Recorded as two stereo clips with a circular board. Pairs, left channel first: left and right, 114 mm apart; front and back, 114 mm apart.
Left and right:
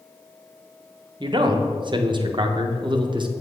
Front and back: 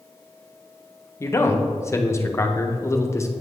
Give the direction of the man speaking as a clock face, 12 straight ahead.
2 o'clock.